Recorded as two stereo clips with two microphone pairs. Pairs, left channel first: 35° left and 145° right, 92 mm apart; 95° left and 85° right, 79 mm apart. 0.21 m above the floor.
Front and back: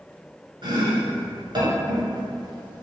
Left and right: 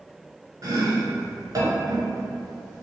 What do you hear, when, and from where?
0.6 s chopping: 125° right, 1.0 m